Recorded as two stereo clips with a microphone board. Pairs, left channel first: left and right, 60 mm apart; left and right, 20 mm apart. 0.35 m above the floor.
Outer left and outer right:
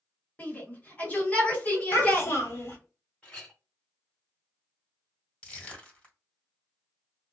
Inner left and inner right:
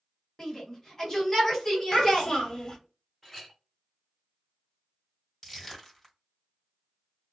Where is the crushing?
20° left (ahead or behind), 1.9 m.